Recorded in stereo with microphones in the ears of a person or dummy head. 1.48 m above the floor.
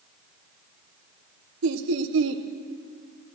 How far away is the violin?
No violin in this recording.